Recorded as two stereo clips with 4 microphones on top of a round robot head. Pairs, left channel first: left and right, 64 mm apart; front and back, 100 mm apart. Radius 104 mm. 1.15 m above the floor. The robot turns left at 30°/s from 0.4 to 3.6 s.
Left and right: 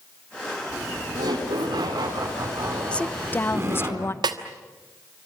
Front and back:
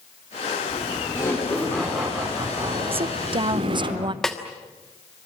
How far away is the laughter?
About 4 m.